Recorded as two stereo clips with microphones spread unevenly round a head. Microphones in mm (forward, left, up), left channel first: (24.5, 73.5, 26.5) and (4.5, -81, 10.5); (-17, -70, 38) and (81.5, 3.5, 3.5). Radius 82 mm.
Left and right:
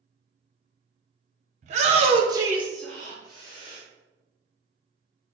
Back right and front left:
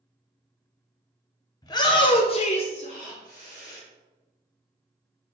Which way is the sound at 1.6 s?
80° right.